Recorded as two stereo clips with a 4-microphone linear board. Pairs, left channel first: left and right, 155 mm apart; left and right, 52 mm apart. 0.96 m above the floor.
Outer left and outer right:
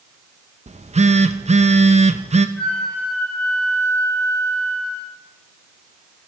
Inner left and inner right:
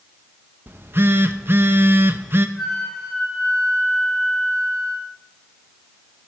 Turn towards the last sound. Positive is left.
turn(degrees=5)  # may be behind; listen again after turning